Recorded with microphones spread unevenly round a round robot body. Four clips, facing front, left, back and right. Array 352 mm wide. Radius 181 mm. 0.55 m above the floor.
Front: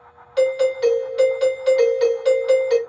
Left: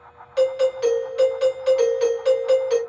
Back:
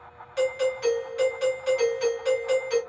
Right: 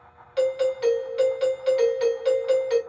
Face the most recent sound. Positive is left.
turn(degrees=0)